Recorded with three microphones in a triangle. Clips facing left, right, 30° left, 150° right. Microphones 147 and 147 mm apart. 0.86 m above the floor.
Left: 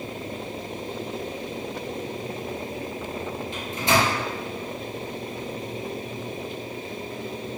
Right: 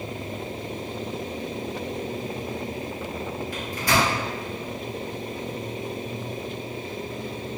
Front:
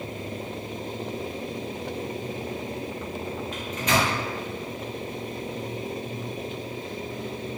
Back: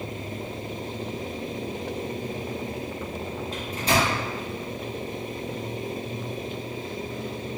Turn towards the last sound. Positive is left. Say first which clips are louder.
# left 1 dB, back 1 dB
turn(degrees=155)